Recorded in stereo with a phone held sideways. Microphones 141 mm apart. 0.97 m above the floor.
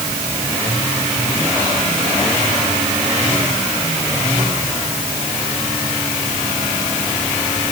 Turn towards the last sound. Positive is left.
No sound to turn to.